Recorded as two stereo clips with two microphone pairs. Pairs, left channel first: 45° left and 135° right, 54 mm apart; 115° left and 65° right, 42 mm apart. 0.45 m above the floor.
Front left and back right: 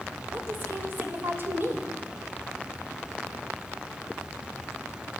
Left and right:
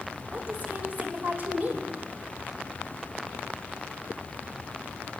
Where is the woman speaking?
105° right, 1.6 m.